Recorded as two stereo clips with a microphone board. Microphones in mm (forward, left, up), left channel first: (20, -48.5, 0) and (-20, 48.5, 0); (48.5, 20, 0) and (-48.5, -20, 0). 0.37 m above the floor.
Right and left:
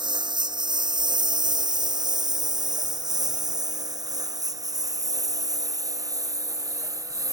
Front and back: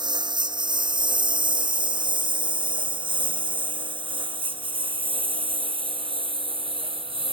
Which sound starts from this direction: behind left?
A lawn mower, at 0.0 s.